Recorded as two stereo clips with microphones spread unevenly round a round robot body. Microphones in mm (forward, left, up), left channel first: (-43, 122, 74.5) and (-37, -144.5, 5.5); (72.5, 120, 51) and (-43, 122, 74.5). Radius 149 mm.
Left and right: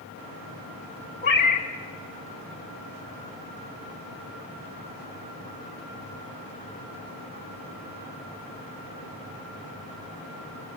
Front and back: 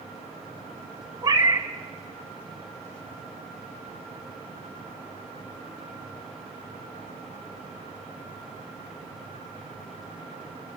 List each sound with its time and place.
1.2 s a cat meowing: 130° left, 1.7 m